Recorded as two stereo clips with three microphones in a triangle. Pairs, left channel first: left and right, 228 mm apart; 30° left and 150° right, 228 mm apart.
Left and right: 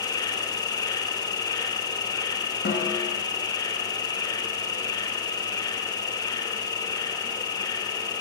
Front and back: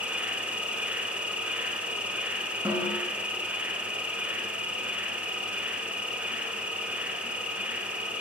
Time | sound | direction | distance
0.0 | an insect | 135° left | 1.2 m
2.6 | a snare drum | 130° left | 3.5 m